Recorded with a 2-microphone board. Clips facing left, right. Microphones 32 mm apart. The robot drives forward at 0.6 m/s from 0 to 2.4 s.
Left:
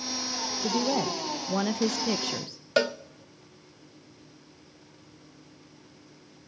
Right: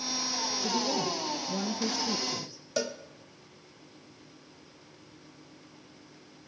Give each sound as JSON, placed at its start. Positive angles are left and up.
{"t": 0.6, "sound": "a woman speaking", "side_deg": 40, "distance_m": 1.1}
{"t": 2.8, "sound": "a cowbell", "side_deg": 50, "distance_m": 0.6}